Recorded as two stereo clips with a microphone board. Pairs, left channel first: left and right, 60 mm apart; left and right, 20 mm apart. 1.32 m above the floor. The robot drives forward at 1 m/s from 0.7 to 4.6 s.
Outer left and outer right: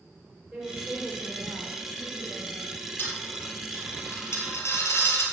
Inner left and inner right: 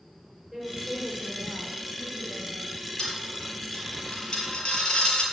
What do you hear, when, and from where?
0.5 s a woman speaking: 5° right (ahead or behind), 5 m; by 2.8 s 10° right (ahead or behind), 3 m
3.0 s a dropped coin: 35° left (ahead or behind), 5.5 m; by 5.2 s 50° left (ahead or behind), 4.5 m